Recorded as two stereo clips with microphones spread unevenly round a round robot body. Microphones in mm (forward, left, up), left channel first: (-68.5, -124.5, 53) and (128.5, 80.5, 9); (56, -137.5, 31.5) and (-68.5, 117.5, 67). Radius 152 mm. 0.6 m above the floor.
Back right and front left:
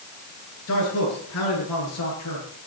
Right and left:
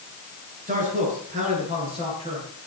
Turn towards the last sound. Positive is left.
turn(degrees=-170)